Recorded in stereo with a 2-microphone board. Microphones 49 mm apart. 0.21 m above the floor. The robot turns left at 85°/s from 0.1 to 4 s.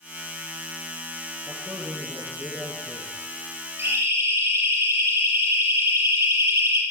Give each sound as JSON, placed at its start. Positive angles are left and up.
{"t": 1.5, "sound": "a man speaking", "azimuth_deg": -20, "distance_m": 5.0}
{"t": 3.8, "sound": "a siren", "side_deg": -50, "distance_m": 9.0}